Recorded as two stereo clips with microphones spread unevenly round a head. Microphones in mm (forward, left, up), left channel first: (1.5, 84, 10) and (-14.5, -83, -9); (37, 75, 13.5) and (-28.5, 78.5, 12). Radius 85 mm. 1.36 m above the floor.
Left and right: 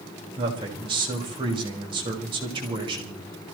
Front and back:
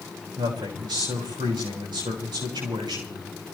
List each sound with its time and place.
0.4 s a man speaking: 160° right, 5.5 m